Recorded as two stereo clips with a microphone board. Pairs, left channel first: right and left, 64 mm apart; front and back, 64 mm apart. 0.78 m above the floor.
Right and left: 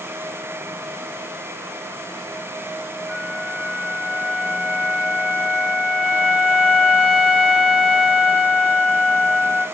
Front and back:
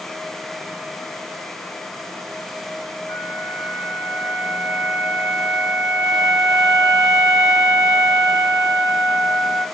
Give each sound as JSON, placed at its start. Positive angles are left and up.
{"t": 3.1, "sound": "a flute", "azimuth_deg": 30, "distance_m": 2.5}